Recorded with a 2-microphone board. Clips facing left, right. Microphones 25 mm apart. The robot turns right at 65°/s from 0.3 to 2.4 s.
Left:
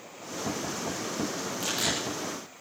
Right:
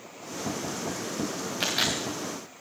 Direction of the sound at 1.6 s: 50° right (ahead or behind).